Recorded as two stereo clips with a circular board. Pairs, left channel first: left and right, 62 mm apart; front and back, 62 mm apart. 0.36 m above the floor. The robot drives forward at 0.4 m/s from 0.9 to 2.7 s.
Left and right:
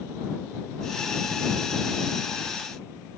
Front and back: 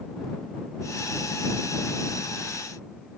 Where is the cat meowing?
No cat meowing in this recording.